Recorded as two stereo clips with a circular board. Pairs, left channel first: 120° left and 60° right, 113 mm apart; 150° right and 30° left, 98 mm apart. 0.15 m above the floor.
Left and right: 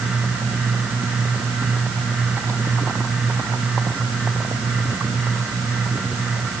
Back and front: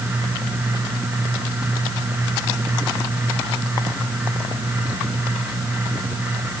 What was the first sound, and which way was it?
Only background noise.